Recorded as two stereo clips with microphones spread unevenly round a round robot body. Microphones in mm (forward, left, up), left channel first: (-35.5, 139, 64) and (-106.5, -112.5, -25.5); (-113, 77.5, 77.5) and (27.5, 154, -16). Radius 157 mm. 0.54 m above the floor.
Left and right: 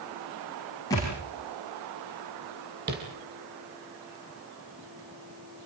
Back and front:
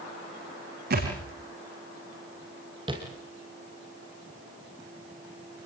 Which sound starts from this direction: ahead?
A thud, at 0.9 s.